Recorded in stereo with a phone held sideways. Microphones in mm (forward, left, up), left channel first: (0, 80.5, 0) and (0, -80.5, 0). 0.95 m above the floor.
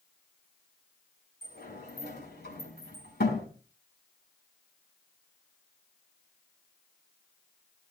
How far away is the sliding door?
About 4 m.